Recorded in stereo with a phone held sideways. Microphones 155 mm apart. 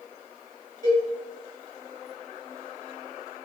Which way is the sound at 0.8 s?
70° right (ahead or behind).